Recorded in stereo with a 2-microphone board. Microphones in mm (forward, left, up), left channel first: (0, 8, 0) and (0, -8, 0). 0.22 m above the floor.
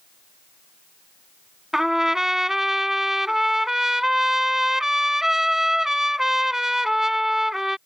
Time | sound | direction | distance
1.7 | a trumpet | 25° right (ahead or behind) | ?